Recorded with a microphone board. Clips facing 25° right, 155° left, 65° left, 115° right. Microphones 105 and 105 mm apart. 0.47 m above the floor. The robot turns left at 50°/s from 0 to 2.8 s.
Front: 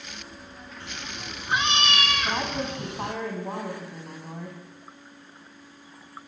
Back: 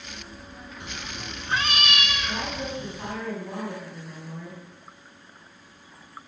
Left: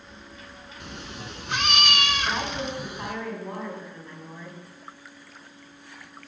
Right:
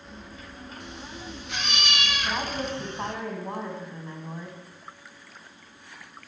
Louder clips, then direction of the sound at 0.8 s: Back 1 dB, left 3 dB; 90° left.